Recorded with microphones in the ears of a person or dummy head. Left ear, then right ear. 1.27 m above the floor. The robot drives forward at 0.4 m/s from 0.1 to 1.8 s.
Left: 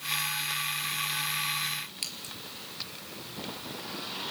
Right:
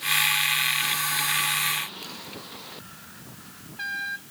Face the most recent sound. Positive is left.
turn(degrees=30)  # may be behind; listen again after turning